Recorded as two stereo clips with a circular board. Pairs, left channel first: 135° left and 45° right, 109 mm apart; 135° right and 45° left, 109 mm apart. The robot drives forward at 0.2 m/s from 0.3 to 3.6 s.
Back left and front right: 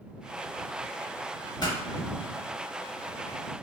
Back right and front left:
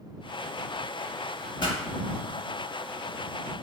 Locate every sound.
1.6 s a pop: straight behind, 0.7 m